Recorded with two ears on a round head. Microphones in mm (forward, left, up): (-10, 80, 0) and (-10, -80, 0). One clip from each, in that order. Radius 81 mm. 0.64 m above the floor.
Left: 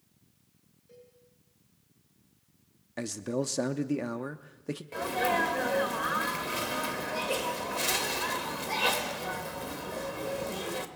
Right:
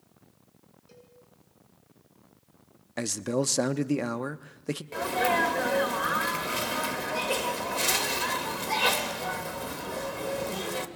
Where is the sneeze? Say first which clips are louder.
Right 2 dB; 10° right (ahead or behind), 1.9 m.